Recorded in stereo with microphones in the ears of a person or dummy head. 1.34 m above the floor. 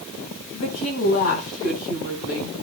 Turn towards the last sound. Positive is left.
turn(degrees=85)